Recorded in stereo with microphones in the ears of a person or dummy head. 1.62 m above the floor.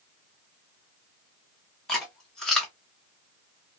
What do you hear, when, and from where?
1.9 s chewing: centre (ahead or behind), 1.0 m